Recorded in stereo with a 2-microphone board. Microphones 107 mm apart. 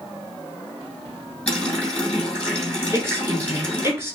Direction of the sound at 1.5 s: 10° left (ahead or behind).